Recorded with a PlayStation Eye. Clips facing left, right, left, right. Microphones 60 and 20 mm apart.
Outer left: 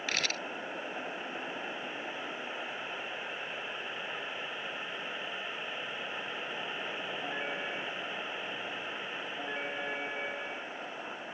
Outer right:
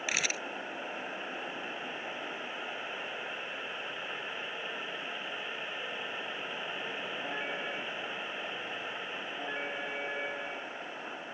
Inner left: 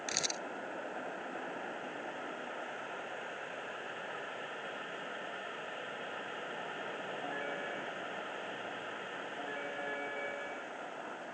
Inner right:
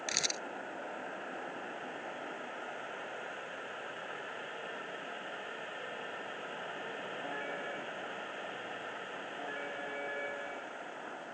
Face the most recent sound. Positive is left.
turn(degrees=-10)  # may be behind; listen again after turning